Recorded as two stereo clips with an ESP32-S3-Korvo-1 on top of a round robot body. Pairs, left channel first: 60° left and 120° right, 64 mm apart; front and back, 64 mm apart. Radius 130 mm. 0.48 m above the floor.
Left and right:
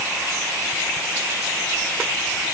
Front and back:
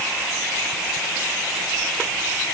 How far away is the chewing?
I don't hear chewing.